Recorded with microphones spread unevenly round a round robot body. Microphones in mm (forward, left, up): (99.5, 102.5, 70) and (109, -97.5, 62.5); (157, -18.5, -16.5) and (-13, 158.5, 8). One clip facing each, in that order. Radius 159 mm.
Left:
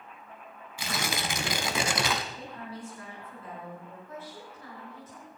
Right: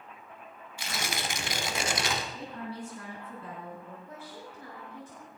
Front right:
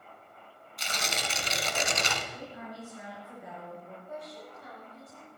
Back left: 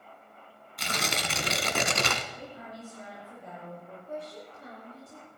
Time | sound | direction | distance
0.8 | tearing paper | 95° left | 1.6 m
2.3 | a woman speaking | 125° right | 4.5 m
4.1 | a woman speaking | 155° right | 5.5 m